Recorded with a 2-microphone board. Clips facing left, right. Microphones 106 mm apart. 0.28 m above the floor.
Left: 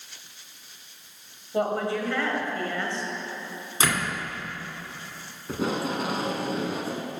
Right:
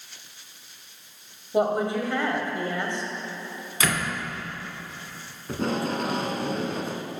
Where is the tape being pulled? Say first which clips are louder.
Right 1 dB; 5° left (ahead or behind), 0.6 m.